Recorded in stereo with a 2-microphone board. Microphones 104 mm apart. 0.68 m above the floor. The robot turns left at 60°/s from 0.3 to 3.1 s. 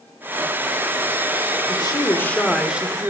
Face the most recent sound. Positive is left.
turn(degrees=-30)